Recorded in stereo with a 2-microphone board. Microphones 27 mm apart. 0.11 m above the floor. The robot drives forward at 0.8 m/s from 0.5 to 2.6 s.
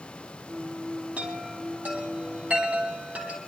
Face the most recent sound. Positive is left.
turn(degrees=-65)  # may be behind; listen again after turning